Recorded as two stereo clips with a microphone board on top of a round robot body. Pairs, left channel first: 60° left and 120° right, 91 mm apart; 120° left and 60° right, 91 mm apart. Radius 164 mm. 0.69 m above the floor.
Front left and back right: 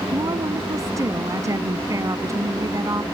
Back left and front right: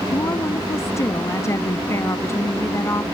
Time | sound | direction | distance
0.1 | a woman speaking | straight behind | ?